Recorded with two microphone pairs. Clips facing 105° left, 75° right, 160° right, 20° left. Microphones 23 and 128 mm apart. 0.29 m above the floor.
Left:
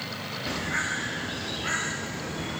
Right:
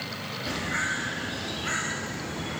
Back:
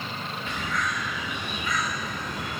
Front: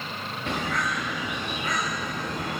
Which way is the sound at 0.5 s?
50° left.